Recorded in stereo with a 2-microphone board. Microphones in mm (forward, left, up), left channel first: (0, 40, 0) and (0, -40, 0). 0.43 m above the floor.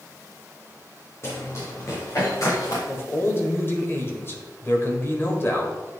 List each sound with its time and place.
1.2 s running footsteps: 35° left (ahead or behind), 4 m; by 2.8 s 50° left (ahead or behind), 5.5 m
2.9 s a man speaking: 35° left (ahead or behind), 1.7 m